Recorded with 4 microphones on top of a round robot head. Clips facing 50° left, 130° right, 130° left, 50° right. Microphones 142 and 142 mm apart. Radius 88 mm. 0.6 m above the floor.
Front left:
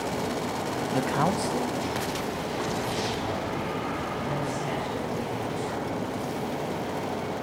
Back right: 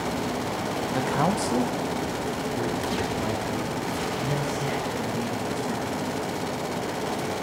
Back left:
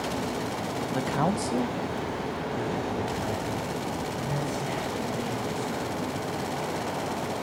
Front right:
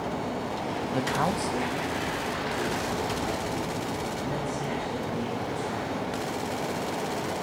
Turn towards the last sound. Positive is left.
turn(degrees=-175)